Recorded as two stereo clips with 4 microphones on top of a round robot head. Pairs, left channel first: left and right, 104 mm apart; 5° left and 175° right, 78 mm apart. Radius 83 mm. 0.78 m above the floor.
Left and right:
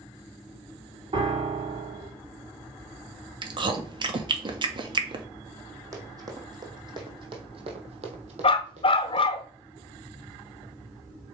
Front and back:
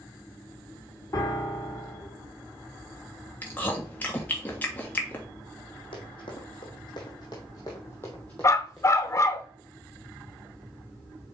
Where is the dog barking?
55° left, 0.9 m.